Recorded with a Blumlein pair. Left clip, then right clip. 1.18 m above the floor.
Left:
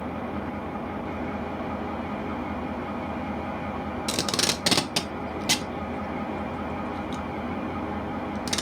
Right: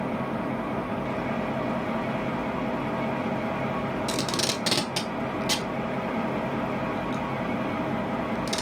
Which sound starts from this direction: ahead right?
An engine running, at 0.0 s.